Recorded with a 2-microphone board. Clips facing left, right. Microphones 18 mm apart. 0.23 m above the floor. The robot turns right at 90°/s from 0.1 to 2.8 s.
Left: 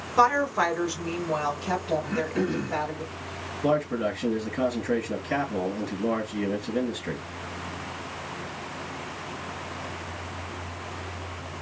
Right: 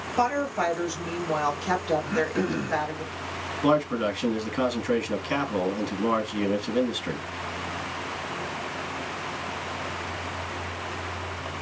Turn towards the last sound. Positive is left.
turn(degrees=-40)  # may be behind; listen again after turning